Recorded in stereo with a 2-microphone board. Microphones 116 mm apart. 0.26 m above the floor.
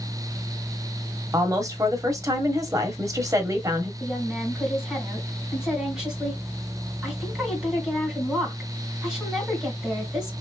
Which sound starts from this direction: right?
A woman speaking, at 1.3 s.